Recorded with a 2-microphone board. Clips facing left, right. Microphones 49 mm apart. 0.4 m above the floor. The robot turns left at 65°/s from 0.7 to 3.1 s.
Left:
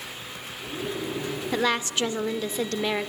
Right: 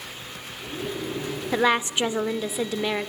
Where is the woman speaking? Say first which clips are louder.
Right 4 dB; 20° right (ahead or behind), 0.8 m; by 3.1 s centre (ahead or behind), 0.8 m.